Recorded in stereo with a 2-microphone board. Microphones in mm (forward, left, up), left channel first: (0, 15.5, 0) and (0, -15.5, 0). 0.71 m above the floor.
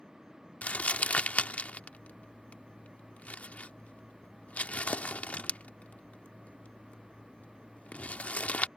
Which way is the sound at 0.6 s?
60° left (ahead or behind).